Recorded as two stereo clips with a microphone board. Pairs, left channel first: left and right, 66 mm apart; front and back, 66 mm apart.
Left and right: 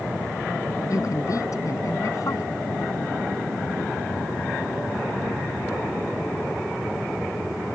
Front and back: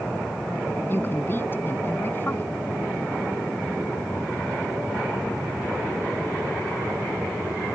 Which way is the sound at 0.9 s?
55° left.